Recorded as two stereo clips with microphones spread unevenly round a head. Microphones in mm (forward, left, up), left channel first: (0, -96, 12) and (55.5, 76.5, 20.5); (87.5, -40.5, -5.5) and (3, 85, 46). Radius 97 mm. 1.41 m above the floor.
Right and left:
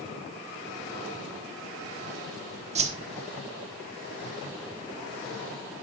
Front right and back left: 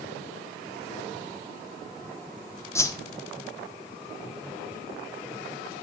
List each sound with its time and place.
2.8 s a whoosh: 25° left, 1.4 m